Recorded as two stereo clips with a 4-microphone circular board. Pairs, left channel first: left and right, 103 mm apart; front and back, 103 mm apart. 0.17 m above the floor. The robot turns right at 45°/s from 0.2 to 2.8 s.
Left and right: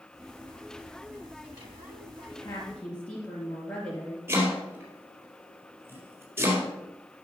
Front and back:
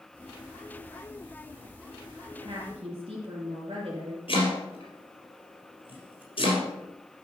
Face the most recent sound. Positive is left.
turn(degrees=-20)